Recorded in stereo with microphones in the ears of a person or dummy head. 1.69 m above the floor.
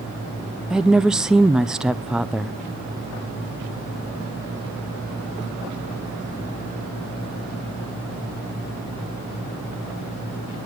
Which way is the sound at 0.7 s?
5° right (ahead or behind).